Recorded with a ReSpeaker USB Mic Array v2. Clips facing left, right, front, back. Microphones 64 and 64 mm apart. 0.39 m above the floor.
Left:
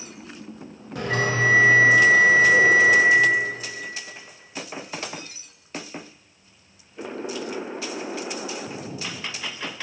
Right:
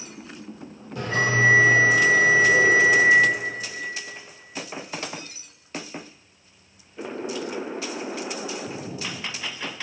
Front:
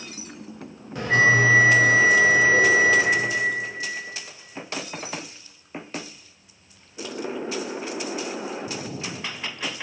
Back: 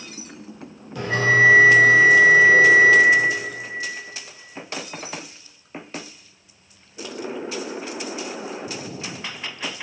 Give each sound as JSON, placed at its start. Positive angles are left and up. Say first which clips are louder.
{"t": 0.9, "sound": "a bell", "louder": "right 1 dB, even", "azimuth_deg": 65, "distance_m": 0.8}